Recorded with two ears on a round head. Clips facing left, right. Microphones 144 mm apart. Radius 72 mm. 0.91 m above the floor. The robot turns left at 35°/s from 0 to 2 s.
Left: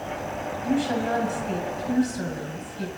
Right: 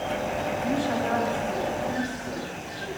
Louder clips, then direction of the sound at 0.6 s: Left 4 dB; 160° left.